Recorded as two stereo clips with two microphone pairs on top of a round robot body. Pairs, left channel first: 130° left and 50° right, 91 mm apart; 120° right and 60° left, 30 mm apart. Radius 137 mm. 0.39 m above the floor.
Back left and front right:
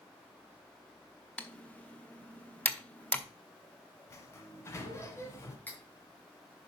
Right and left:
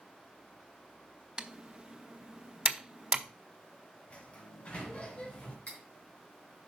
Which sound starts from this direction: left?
Typing on a keyboard, at 1.4 s.